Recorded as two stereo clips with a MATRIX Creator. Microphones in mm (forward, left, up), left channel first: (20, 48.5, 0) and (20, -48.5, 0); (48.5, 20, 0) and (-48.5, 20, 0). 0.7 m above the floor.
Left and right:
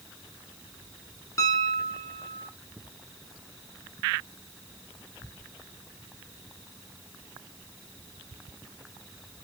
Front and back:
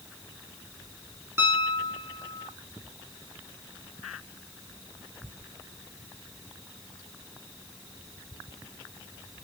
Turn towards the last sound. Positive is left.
turn(degrees=130)